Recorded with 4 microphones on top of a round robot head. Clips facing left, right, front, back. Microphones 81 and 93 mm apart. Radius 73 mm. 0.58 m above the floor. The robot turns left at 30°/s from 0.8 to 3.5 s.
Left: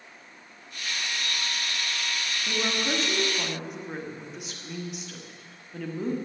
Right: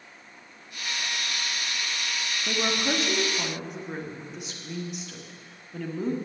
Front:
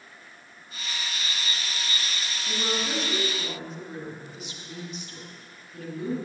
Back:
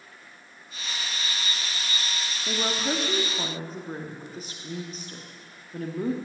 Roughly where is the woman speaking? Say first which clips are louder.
Right 2 dB, back 2 dB; behind right.